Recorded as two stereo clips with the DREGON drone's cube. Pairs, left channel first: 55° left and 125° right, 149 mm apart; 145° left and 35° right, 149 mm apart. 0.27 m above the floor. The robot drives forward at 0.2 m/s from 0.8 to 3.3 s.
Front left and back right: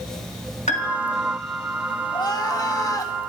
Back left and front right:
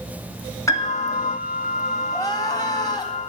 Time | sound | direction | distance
0.7 | a piano | 80° left | 2.5 m
2.1 | crying | 95° left | 2.0 m